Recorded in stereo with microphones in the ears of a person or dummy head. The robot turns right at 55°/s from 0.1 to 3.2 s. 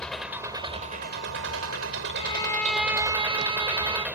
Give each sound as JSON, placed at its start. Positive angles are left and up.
{"t": 0.0, "sound": "an engine running", "azimuth_deg": 180}
{"t": 2.1, "sound": "a violin", "azimuth_deg": 150}